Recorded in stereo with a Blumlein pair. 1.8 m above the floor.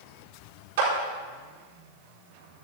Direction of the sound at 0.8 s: 55° right.